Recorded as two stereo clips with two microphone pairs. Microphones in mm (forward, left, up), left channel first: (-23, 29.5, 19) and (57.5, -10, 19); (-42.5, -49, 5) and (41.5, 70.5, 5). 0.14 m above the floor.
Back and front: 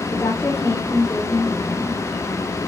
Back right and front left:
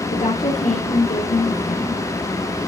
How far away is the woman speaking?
About 3.5 m.